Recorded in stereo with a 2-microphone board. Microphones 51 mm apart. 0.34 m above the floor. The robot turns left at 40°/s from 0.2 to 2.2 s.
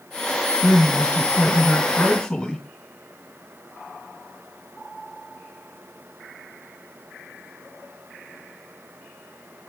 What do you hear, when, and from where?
0.6 s a man speaking: 80° left, 1.6 m; by 2.6 s 15° left, 1.6 m